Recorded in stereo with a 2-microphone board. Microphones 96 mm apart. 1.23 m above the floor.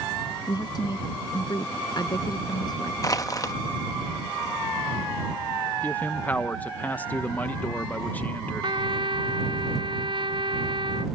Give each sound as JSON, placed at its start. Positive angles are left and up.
{"t": 0.5, "sound": "a woman speaking", "side_deg": 45}
{"t": 3.0, "sound": "crushing", "side_deg": 35}
{"t": 5.8, "sound": "a man speaking", "side_deg": 20}
{"t": 8.6, "sound": "a trumpet", "side_deg": -65}